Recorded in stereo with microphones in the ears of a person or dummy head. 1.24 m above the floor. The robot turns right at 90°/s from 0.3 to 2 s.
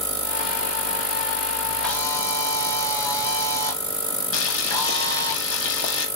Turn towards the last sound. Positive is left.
turn(degrees=70)  # may be behind; listen again after turning